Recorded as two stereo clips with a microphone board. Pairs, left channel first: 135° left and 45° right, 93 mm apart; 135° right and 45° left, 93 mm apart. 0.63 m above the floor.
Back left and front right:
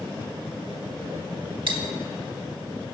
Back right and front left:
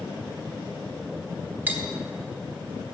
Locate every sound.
1.7 s cutlery clinking: 25° right, 1.1 m